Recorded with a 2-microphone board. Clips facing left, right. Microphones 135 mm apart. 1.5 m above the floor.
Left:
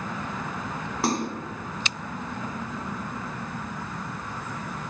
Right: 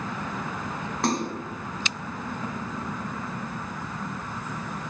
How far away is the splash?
About 0.7 m.